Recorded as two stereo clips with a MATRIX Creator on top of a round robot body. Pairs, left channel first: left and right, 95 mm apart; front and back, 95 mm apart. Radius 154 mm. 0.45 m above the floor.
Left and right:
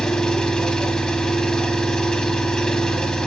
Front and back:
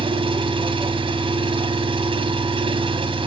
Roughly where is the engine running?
Behind.